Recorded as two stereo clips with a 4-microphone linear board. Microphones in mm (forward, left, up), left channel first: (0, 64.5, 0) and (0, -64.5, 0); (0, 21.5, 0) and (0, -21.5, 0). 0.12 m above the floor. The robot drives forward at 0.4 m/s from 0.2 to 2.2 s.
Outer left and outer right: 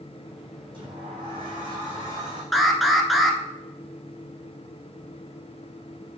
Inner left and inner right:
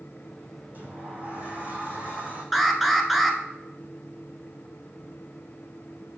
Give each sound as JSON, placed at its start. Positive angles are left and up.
{"t": 0.7, "sound": "a sliding door", "side_deg": -45, "distance_m": 3.5}
{"t": 2.5, "sound": "an alarm", "side_deg": 0, "distance_m": 0.9}